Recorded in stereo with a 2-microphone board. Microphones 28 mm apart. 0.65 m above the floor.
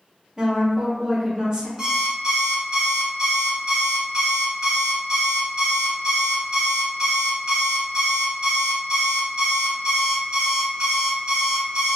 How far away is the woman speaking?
About 1.0 m.